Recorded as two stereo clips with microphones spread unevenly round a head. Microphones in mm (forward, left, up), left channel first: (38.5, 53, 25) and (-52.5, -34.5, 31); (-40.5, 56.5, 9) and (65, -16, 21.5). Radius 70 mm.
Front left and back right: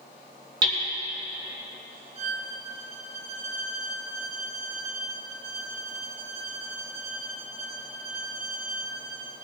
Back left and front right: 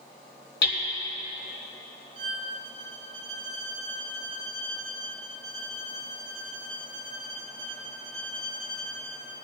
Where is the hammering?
170° left, 2.5 m.